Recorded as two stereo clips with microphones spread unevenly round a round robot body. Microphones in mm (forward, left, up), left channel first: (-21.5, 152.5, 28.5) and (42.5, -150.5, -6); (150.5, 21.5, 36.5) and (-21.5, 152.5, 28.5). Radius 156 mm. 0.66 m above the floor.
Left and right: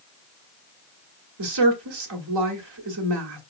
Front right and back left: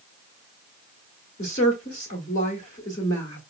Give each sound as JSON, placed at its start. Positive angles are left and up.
{"t": 1.4, "sound": "a woman speaking", "azimuth_deg": -100, "distance_m": 1.4}